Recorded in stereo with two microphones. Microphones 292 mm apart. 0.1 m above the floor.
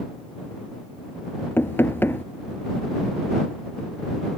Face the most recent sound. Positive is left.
turn(degrees=5)  # may be behind; listen again after turning